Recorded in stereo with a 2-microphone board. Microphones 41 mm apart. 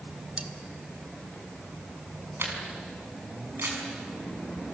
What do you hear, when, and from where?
0.4 s cutlery clinking: 25° right (ahead or behind), 1.4 m
2.4 s a camera shutter: 65° right (ahead or behind), 5.5 m